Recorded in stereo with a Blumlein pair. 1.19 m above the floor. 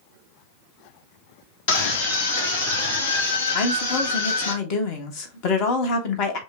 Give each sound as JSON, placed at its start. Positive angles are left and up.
{"t": 1.7, "sound": "a scream", "azimuth_deg": 50, "distance_m": 1.6}
{"t": 3.5, "sound": "a woman speaking", "azimuth_deg": 40, "distance_m": 1.3}